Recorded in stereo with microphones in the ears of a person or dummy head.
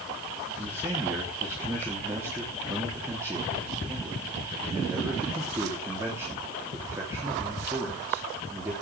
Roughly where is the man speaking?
Centre.